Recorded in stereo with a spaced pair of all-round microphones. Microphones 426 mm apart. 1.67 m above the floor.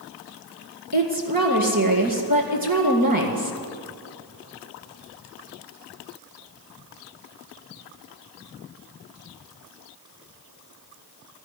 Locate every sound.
0.9 s a woman speaking: 55° right (ahead or behind), 2 m